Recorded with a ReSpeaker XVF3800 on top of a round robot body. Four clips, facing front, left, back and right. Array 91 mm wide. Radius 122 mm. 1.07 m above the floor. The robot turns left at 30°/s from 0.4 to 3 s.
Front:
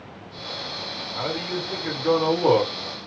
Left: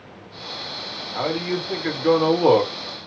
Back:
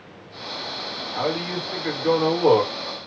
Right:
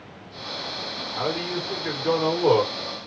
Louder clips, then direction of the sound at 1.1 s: Left 3 dB, back 3 dB; 120° left.